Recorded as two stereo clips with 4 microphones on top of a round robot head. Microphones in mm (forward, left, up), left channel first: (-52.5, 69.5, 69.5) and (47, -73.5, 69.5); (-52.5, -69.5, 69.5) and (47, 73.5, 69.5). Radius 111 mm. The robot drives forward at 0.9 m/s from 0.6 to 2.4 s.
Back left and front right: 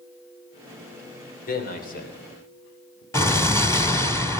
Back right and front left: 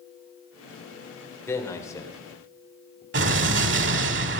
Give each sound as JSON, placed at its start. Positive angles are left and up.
{"t": 1.5, "sound": "a man speaking", "azimuth_deg": 160, "distance_m": 3.0}
{"t": 3.1, "sound": "an explosion", "azimuth_deg": 50, "distance_m": 1.4}